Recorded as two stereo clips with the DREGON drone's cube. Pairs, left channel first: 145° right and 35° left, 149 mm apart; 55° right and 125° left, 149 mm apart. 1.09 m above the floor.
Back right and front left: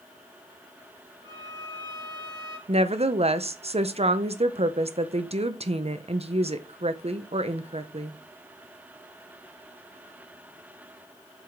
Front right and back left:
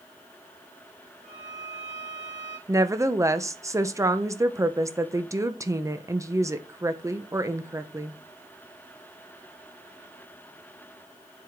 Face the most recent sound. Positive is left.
turn(degrees=60)